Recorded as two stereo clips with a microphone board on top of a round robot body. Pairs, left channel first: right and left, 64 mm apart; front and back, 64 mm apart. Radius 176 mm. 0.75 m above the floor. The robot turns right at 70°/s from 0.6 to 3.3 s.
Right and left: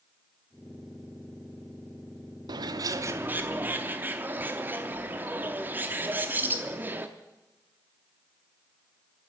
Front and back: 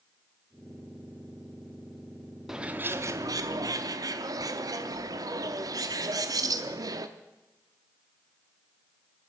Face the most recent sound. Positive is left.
turn(degrees=155)